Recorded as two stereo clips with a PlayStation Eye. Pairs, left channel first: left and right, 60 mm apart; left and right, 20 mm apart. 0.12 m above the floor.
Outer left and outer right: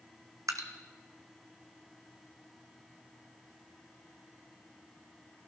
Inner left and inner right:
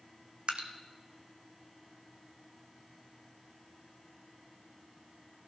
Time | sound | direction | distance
0.5 | dripping | 65° right (ahead or behind) | 1.1 m